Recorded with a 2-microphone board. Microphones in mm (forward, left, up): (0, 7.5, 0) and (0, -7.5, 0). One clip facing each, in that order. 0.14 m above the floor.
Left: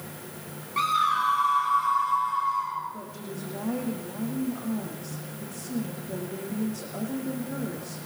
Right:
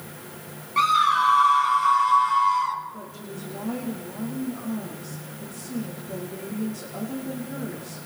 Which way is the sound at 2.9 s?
5° left (ahead or behind).